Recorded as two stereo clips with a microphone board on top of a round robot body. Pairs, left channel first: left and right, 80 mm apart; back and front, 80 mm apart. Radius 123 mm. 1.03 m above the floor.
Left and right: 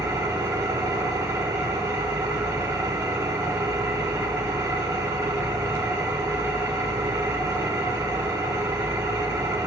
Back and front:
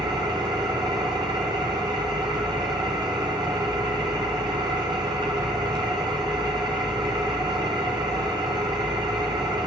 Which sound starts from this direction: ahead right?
An engine running, at 0.0 s.